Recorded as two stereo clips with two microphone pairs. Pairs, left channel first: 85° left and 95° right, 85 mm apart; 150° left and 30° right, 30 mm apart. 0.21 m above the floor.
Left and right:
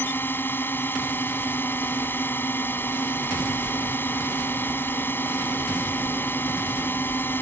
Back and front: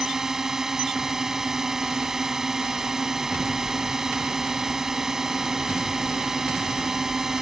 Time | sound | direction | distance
0.0 | a drone | 40° left | ?